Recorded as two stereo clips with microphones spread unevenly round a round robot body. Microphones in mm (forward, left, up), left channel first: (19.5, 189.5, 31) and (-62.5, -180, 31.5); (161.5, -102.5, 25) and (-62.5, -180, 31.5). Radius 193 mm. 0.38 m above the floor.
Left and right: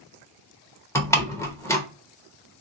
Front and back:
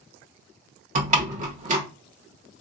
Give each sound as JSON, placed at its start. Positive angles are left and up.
{"t": 0.9, "sound": "a door slam", "azimuth_deg": 155, "distance_m": 0.7}